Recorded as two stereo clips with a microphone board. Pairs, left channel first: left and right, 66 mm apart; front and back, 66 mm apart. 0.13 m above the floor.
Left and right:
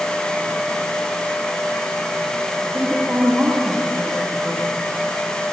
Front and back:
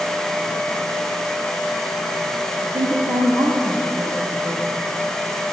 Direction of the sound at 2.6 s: 165° right.